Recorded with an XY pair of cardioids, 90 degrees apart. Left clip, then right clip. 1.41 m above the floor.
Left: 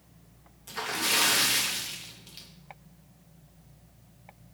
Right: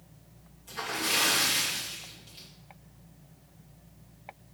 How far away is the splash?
About 0.7 m.